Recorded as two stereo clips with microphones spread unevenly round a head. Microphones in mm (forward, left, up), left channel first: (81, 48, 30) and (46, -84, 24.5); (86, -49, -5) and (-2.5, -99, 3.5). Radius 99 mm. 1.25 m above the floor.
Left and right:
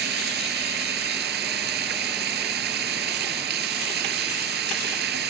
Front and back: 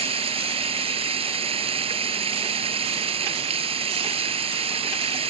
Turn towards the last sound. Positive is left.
turn(degrees=-125)